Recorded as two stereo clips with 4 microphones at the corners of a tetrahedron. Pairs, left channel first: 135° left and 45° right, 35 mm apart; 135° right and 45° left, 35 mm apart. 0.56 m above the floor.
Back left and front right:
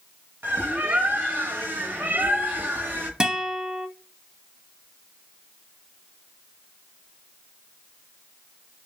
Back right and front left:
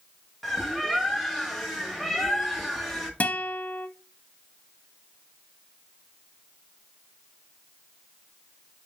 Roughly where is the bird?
Ahead right.